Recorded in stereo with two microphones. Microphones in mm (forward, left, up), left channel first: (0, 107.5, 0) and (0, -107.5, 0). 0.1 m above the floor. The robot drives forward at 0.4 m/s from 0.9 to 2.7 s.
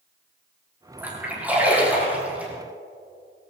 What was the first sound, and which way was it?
A splash, 10° right (ahead or behind).